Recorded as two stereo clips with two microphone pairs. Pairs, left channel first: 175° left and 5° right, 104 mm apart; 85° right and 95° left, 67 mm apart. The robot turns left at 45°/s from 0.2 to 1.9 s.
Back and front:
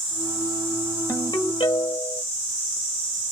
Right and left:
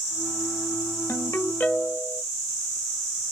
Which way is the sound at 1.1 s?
130° right.